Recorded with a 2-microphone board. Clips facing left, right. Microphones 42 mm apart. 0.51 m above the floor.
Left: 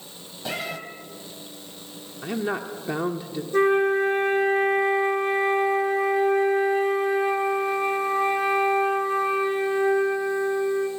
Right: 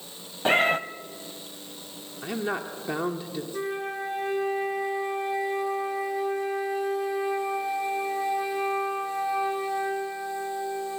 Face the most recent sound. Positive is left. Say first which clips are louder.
# left 14 dB
turn(degrees=50)  # may be behind; listen again after turning